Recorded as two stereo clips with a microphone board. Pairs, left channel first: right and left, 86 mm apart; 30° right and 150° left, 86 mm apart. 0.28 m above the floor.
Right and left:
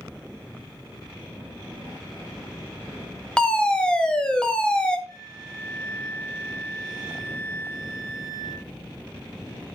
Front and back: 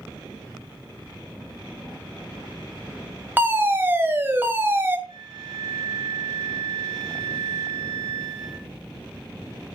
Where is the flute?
155° left, 4 m.